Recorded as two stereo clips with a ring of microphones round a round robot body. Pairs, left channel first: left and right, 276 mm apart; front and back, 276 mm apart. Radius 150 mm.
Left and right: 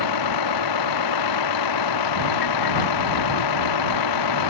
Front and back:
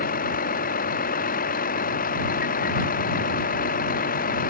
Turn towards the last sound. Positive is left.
turn(degrees=65)